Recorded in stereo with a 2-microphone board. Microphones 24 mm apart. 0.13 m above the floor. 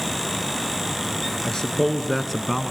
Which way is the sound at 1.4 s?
30° left (ahead or behind).